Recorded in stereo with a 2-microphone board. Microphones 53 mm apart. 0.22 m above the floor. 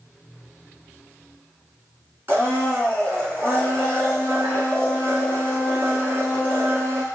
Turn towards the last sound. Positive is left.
turn(degrees=-40)  # may be behind; listen again after turning